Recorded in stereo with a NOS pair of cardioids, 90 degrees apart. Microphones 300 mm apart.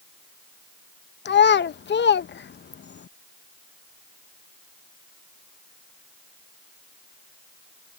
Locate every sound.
1.2 s a child speaking: 35° left